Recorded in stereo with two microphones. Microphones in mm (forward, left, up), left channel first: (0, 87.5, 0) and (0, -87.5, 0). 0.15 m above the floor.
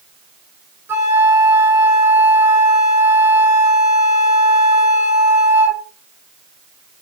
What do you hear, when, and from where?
0.9 s a flute: 15° right (ahead or behind), 1.0 m